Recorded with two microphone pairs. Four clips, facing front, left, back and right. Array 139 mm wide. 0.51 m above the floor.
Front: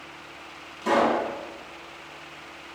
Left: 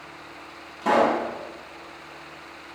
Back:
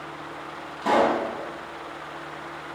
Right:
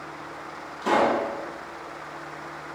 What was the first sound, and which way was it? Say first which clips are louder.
A pop: left 1 dB, back 1 dB; 135° left.